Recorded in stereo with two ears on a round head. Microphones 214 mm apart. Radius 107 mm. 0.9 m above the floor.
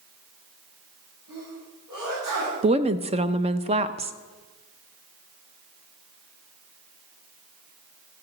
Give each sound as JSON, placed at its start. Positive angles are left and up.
{"t": 1.3, "sound": "a sneeze", "side_deg": -45, "distance_m": 7.5}
{"t": 2.6, "sound": "a woman speaking", "side_deg": -25, "distance_m": 0.5}